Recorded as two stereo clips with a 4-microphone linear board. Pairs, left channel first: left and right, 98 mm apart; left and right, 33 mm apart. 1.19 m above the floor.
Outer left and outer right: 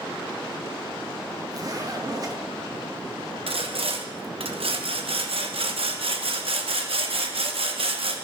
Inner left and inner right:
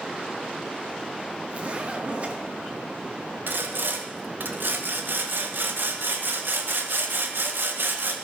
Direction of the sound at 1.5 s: 40° right (ahead or behind).